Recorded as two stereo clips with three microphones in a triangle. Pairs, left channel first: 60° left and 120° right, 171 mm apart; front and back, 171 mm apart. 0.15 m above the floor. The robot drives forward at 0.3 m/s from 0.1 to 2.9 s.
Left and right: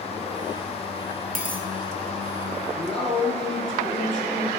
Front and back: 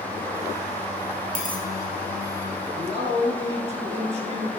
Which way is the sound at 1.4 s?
150° right.